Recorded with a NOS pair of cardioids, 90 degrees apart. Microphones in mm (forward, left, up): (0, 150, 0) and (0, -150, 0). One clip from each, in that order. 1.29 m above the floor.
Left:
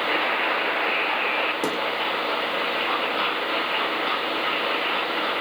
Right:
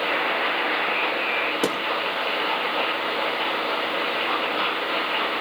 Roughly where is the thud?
Ahead right.